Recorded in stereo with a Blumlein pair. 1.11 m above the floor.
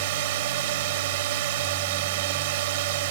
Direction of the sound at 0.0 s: 50° right.